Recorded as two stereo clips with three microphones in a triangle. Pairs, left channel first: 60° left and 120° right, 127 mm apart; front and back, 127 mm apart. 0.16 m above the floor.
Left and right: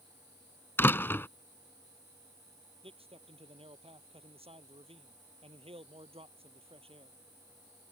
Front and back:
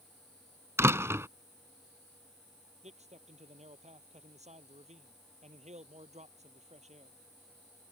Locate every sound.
0.8 s a door slam: 120° left
2.8 s a man speaking: 160° right